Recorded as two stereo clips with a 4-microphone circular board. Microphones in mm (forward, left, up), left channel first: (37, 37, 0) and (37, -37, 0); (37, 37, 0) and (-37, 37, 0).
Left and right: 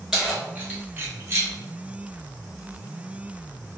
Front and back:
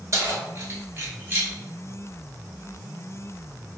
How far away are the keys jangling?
About 1.0 m.